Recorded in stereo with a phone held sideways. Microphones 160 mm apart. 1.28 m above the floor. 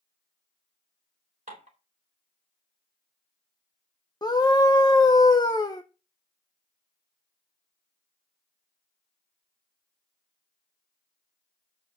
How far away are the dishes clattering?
About 3.5 m.